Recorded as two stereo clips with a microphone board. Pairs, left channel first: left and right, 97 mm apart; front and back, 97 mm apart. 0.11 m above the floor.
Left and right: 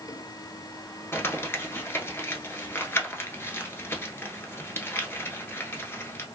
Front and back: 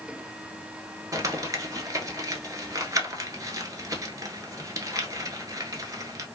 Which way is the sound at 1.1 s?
145° left.